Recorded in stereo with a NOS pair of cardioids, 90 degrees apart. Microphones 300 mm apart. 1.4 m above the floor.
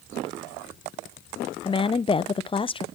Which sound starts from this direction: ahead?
A woman speaking, at 1.6 s.